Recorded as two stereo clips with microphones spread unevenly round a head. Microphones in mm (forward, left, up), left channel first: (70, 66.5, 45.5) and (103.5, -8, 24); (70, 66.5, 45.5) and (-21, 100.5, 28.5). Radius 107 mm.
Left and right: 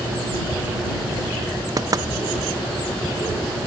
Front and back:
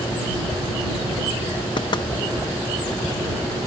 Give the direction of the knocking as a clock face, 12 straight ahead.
1 o'clock.